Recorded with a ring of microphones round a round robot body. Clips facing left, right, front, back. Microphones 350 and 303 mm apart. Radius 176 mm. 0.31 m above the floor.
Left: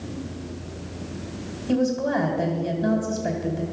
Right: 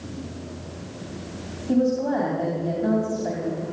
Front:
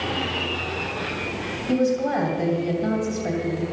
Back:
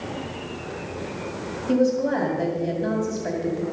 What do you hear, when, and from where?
1.7 s a woman speaking: 75° left, 2.5 m